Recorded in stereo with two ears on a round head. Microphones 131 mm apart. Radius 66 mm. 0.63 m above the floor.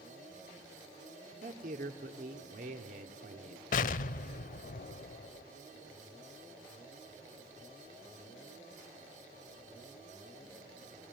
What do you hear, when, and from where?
1.4 s a man speaking: 55° right (ahead or behind), 1.8 m
3.7 s an explosion: 60° left (ahead or behind), 0.7 m